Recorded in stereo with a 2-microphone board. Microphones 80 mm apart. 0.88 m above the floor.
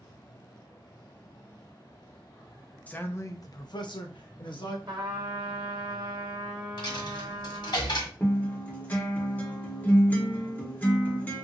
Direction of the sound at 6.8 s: 70° left (ahead or behind).